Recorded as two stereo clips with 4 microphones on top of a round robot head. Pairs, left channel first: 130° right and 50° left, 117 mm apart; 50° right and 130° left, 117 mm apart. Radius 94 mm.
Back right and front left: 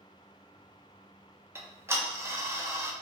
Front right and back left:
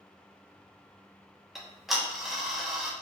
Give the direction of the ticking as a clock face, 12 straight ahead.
10 o'clock.